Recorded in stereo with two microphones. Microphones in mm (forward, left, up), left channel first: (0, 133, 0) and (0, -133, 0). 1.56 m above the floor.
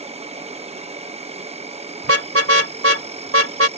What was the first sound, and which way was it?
An insect, 25° right (ahead or behind).